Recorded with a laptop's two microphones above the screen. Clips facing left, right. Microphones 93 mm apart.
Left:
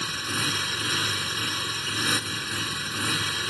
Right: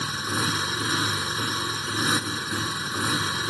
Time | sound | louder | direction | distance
0.0 | a motorcycle | right 3 dB | 25° right (ahead or behind) | ?